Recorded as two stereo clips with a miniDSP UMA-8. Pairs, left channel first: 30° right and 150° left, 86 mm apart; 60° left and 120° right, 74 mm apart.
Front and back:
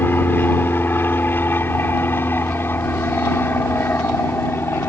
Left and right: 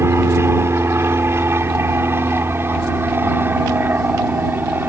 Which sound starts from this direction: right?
An aircraft, at 0.0 s.